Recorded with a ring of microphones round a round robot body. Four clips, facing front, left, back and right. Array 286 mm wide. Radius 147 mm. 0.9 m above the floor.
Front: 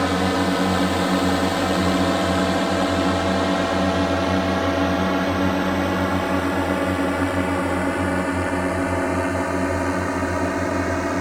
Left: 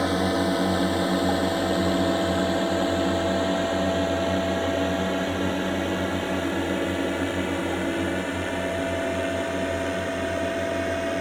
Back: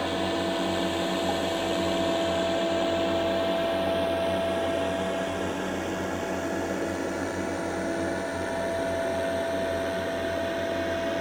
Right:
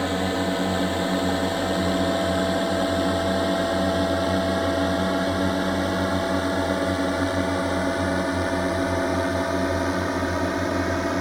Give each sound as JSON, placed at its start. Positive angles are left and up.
{"t": 0.0, "sound": "a drone", "azimuth_deg": 5}